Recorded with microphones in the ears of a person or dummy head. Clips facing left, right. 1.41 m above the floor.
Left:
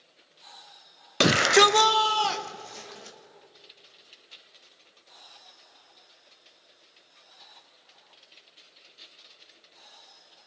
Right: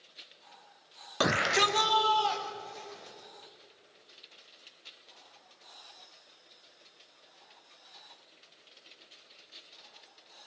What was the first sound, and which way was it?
A shout, 30° left (ahead or behind).